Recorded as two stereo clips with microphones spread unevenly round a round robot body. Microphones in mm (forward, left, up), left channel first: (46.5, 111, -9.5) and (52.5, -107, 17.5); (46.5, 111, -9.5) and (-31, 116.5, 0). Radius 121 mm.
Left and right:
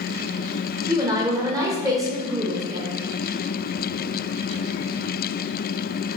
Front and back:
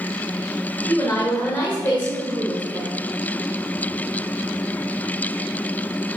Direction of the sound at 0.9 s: 15° right.